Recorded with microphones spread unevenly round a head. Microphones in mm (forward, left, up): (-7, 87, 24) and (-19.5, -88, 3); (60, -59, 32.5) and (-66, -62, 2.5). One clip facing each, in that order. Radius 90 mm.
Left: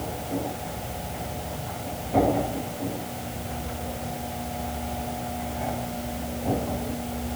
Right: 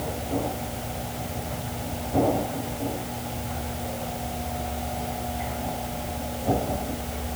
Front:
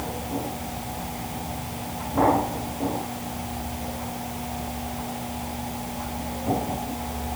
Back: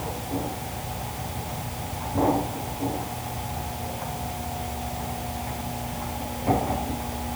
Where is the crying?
I don't hear crying.